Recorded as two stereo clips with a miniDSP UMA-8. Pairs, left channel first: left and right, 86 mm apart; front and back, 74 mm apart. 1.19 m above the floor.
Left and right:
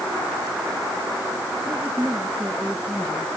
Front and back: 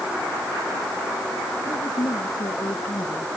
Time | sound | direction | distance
1.6 | a woman speaking | 20° right | ?